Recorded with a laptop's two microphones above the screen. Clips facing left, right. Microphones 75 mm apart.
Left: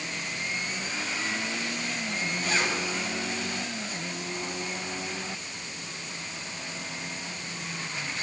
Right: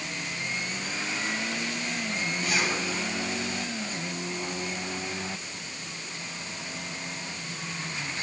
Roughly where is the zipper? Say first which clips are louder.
Even; left.